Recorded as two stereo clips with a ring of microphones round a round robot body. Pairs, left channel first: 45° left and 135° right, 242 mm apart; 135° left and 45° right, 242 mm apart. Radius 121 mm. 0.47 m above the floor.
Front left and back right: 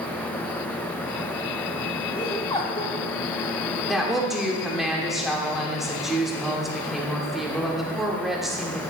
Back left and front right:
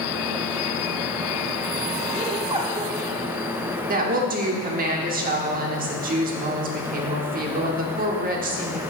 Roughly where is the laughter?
Ahead.